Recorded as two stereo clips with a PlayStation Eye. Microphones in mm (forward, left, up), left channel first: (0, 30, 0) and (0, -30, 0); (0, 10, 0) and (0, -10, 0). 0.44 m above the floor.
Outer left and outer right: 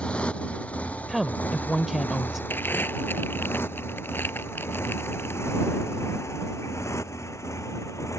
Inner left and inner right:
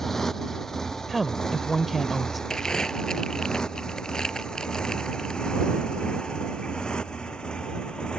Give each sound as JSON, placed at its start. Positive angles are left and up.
{"t": 0.0, "sound": "a motorcycle", "side_deg": 20}
{"t": 1.1, "sound": "a woman speaking", "side_deg": 0}
{"t": 2.5, "sound": "crumpling", "side_deg": 35}